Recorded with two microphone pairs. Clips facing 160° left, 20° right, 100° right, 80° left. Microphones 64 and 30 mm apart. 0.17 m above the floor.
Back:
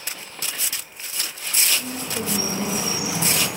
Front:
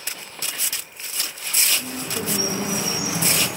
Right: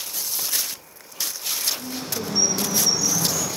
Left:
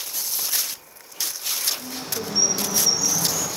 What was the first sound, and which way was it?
A bird, 5° right.